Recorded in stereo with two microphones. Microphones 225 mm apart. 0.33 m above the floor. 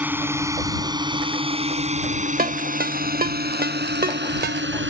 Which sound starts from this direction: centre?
A drone, at 0.0 s.